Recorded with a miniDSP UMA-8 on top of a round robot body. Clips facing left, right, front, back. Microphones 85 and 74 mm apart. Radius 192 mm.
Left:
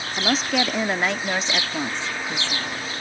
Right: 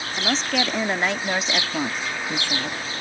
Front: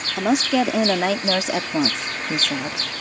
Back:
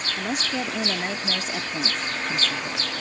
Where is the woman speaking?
5° left; by 2.8 s 15° right.